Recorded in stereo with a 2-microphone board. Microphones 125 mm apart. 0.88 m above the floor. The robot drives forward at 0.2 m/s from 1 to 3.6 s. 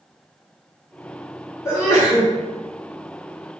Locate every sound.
1.6 s a sneeze: 20° left (ahead or behind), 1.1 m